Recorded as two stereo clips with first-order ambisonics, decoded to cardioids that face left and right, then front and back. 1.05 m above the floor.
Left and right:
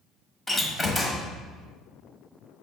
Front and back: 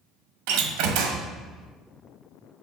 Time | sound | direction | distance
0.5 | a door slam | 170° left | 0.7 m